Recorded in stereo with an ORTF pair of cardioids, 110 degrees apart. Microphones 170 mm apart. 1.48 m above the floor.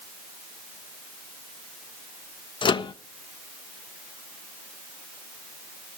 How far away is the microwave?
About 1.3 m.